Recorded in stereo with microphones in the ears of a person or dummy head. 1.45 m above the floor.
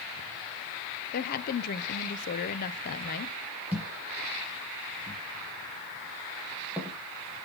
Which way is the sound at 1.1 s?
50° left (ahead or behind).